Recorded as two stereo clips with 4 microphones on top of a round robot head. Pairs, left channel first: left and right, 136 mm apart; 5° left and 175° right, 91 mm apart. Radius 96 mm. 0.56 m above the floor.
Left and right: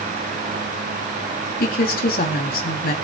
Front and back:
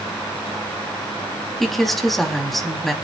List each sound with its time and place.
1.6 s a woman speaking: 95° left, 3.5 m